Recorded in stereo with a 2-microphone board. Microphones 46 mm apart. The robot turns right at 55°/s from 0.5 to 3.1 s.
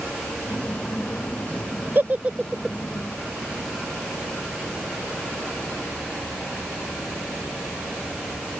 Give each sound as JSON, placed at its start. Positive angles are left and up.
{"t": 1.9, "sound": "a giggle", "side_deg": -45}